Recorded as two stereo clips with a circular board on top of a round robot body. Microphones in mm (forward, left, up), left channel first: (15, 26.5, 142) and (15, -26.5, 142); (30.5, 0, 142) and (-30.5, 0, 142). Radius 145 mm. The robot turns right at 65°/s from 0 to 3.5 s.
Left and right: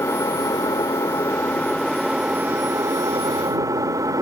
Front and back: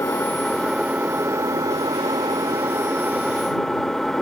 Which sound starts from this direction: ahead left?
An engine running, at 0.0 s.